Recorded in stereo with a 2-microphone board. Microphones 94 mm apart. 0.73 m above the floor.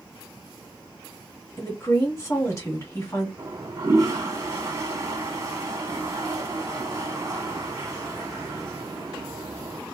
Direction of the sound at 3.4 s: 35° right (ahead or behind).